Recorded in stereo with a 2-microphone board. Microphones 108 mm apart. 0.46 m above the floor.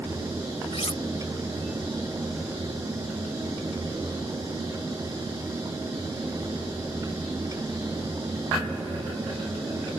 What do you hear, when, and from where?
0.7 s cutlery clinking: 65° left (ahead or behind)